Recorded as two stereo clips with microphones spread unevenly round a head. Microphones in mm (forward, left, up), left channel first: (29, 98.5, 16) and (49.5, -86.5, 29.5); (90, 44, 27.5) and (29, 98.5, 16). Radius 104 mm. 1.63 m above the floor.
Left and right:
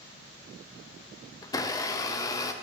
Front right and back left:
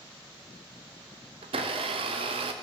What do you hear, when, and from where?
1.4 s a blender: 170° left, 0.5 m